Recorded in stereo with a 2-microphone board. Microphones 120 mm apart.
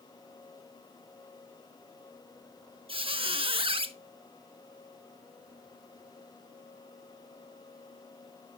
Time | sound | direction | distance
2.9 | a squeak | 50° right (ahead or behind) | 0.7 m